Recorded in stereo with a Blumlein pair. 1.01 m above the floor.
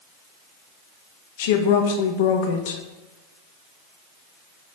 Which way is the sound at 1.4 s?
55° left.